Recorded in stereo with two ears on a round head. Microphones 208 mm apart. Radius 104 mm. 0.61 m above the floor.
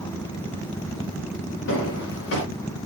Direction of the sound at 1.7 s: 60° left (ahead or behind).